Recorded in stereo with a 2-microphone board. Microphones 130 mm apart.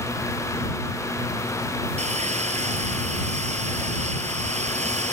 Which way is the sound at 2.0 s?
70° right (ahead or behind).